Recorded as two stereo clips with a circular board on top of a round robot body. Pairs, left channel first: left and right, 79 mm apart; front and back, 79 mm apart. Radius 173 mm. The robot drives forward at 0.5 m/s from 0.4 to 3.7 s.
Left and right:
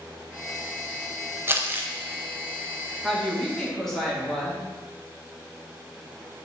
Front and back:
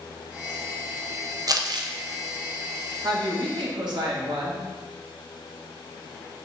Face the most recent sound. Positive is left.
turn(degrees=175)